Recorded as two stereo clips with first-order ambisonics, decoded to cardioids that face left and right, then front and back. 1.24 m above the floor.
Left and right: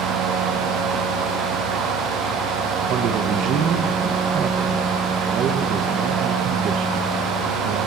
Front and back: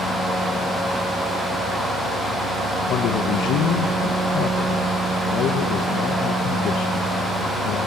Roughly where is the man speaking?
Ahead right.